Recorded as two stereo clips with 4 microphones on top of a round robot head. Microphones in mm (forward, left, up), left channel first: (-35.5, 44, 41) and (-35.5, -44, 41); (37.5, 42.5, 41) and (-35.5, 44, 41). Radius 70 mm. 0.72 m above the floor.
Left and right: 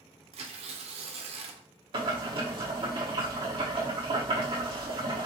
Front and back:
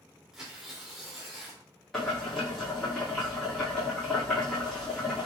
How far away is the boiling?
About 1.9 m.